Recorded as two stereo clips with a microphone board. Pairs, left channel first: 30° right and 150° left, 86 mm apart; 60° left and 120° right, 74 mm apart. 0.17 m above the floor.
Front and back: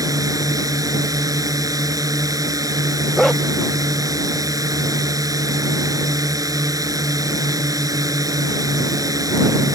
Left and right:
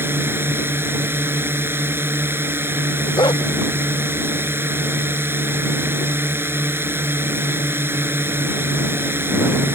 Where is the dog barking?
55° left.